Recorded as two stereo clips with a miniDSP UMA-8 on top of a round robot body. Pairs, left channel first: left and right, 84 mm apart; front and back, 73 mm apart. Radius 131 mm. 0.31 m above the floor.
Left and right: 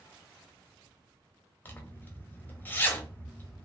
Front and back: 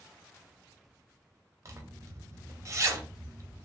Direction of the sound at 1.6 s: 150° left.